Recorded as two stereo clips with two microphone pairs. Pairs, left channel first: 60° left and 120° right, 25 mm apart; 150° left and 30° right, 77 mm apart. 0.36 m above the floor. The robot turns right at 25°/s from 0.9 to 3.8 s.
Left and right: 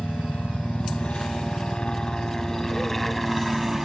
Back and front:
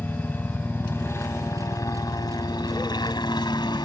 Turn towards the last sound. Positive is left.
turn(degrees=160)